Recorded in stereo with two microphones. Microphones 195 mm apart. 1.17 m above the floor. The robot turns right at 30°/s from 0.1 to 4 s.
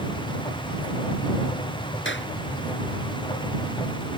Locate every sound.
2.0 s a clap: 75° left (ahead or behind); by 2.3 s 70° left (ahead or behind)